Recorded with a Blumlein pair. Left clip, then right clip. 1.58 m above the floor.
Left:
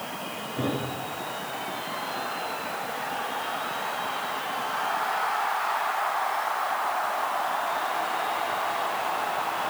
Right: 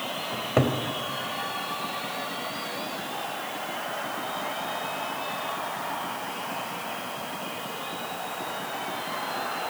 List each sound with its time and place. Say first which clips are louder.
0.3 s a cupboard door: right 6 dB; 50° right, 3.5 m